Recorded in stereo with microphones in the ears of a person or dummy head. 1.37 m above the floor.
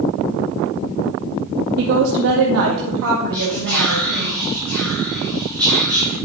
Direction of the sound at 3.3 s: 10° left (ahead or behind).